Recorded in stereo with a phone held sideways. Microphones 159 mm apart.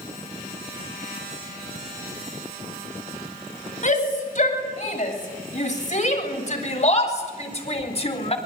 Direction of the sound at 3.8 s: 50° left (ahead or behind).